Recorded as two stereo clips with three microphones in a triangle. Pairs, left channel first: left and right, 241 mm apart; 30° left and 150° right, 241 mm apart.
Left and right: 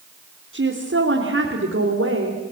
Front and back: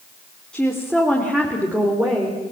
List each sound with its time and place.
0.5 s a woman speaking: 55° right, 3.5 m; by 2.4 s 75° right, 4 m